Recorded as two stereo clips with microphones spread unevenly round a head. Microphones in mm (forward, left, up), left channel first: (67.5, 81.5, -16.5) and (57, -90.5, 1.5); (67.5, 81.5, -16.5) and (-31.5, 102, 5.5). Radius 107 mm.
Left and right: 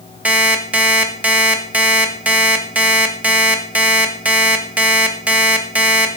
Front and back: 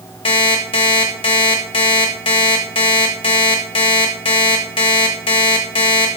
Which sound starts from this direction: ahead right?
An alarm clock, at 0.2 s.